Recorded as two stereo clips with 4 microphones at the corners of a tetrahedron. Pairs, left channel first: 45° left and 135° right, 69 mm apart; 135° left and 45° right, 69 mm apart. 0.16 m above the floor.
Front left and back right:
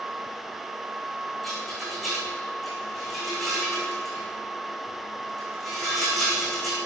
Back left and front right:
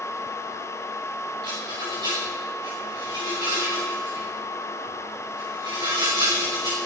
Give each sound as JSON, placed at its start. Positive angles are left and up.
{"t": 1.4, "sound": "a rattle", "azimuth_deg": -45, "distance_m": 5.5}